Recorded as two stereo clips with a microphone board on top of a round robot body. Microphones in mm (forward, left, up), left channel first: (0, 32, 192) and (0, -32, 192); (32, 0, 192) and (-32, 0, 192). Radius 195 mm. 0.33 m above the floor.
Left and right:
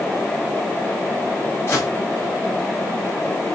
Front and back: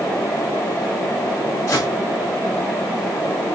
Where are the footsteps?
35° left, 8 m.